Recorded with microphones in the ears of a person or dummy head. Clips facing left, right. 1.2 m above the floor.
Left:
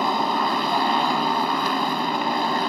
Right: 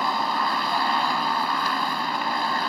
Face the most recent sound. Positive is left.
turn(degrees=25)  # may be behind; listen again after turning